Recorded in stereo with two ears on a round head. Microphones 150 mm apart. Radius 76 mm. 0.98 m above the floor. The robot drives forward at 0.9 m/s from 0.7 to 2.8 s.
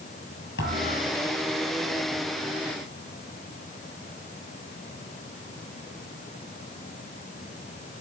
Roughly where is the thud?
Left.